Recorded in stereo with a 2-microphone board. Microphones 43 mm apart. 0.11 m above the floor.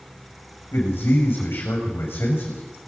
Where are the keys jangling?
No keys jangling in this recording.